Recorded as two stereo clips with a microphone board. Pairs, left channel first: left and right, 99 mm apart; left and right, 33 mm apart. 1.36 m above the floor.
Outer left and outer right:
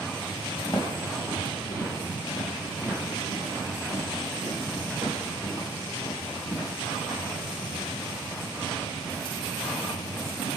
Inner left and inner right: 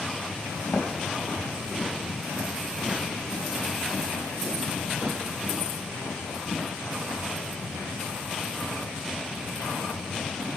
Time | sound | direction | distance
0.7 | footsteps | 50° left (ahead or behind) | 2 m